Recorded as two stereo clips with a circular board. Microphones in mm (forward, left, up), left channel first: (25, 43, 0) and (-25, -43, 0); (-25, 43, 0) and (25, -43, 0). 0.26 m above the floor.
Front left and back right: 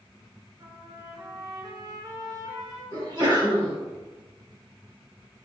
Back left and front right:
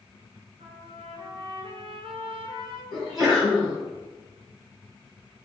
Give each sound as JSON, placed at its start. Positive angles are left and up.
{"t": 0.6, "sound": "a trumpet", "azimuth_deg": -65, "distance_m": 0.9}
{"t": 2.9, "sound": "a sneeze", "azimuth_deg": -145, "distance_m": 1.9}